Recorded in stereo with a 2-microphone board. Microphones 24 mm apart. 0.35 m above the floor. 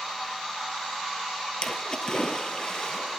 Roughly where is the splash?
Left.